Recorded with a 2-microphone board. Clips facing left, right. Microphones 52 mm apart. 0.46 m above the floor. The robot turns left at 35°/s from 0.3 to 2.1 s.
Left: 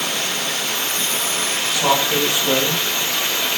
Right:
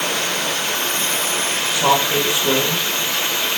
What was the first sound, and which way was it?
Running water, 100° right.